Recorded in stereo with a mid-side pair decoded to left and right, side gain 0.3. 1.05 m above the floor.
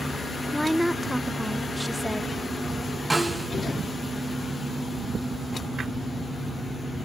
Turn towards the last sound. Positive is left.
turn(degrees=-5)